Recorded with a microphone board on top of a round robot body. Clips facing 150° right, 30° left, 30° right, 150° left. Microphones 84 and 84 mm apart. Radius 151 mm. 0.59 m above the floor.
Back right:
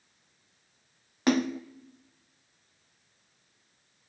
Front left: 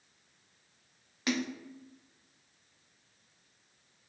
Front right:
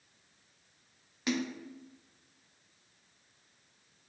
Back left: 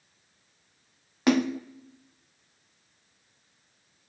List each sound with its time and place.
1.3 s a splash: 170° left, 0.6 m